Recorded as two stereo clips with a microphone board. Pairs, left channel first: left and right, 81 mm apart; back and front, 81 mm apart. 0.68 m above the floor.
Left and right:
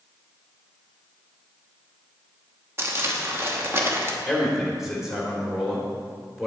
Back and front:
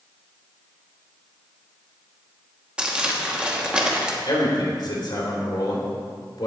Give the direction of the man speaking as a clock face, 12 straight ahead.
6 o'clock.